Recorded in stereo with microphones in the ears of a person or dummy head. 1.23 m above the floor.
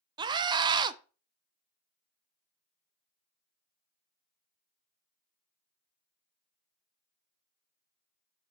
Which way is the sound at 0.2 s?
20° right (ahead or behind).